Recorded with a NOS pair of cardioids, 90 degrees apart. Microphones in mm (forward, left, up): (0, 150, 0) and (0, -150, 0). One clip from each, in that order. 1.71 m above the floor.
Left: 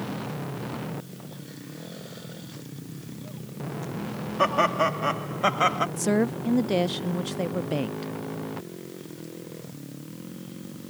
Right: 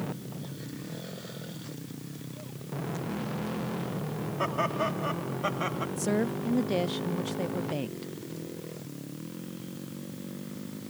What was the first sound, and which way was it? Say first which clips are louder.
Laughter: left 7 dB; 50° left.